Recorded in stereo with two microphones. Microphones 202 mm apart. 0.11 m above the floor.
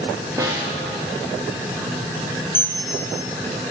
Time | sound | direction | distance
0.4 | a snare drum | 15° right (ahead or behind) | 7 m
2.5 | a bell | 10° left (ahead or behind) | 1.9 m